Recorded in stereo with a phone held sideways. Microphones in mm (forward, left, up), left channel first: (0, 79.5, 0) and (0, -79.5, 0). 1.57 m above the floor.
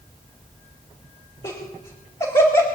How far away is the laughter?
About 2.5 m.